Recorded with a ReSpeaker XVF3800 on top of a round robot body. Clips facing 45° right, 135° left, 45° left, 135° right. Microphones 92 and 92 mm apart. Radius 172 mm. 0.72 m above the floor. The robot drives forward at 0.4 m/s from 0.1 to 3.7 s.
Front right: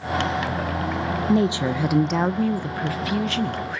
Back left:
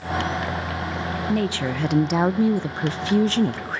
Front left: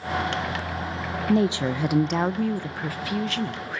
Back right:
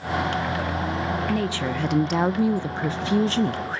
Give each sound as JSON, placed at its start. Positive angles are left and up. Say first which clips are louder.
{"t": 1.3, "sound": "a woman speaking", "louder": "front right 4 dB, front left 3 dB", "azimuth_deg": 0, "distance_m": 0.6}